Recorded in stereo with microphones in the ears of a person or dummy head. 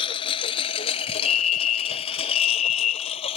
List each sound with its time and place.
0.0 s a lawn mower: 35° left (ahead or behind); by 3.4 s 40° left (ahead or behind)
1.2 s a fire alarm: 30° left (ahead or behind)